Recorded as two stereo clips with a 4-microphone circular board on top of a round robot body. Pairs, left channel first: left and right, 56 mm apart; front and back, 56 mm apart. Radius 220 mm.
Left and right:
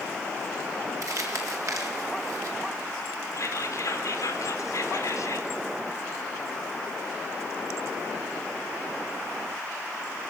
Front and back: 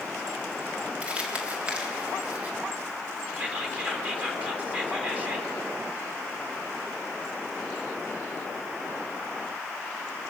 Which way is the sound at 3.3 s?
115° left.